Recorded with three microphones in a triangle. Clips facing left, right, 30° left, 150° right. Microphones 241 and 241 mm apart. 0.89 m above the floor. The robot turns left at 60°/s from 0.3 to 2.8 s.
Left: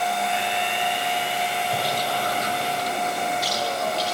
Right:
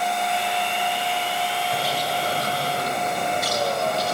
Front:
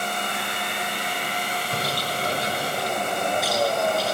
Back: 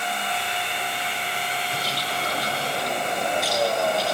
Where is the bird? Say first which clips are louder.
Even, front 2 dB; 5° left, 2.5 m; by 4.1 s 60° right, 2.5 m.